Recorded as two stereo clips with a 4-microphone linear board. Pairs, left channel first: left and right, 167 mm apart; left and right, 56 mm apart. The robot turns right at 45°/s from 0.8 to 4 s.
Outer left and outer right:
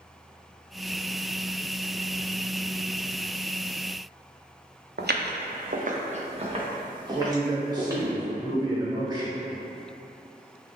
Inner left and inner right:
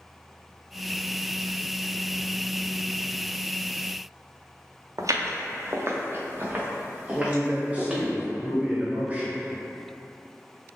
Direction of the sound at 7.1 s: 20° right (ahead or behind).